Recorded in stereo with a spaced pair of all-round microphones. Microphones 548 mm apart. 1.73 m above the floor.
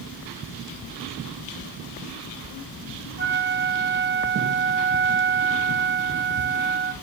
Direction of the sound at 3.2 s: 20° right (ahead or behind).